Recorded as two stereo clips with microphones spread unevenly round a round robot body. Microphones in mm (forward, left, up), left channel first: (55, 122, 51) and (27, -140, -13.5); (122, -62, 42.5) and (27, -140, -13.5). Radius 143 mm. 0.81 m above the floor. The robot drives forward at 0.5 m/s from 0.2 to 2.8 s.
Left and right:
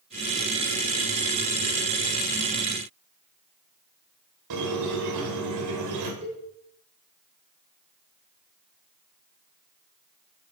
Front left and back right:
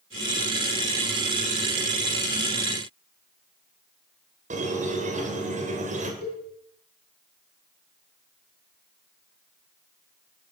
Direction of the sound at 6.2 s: 170° right.